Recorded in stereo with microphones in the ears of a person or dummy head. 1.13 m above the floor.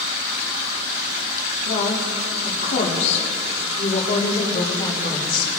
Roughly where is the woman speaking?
Left.